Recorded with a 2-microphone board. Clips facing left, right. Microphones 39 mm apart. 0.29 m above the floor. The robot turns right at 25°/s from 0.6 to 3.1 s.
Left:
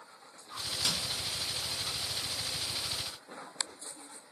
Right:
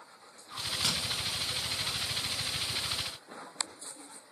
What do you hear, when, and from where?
0.6 s a crack: 65° right (ahead or behind), 3 m; by 0.9 s 60° right (ahead or behind), 3 m